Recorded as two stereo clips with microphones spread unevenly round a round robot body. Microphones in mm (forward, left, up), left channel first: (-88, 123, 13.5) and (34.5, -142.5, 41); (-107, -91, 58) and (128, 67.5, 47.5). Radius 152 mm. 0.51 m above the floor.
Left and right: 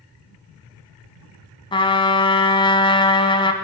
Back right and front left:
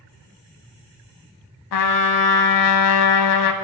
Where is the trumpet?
170° right, 0.7 m.